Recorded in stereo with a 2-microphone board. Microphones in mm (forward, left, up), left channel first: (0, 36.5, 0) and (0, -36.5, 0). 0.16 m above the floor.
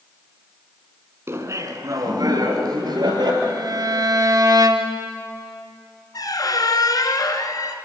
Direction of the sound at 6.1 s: 60° left (ahead or behind).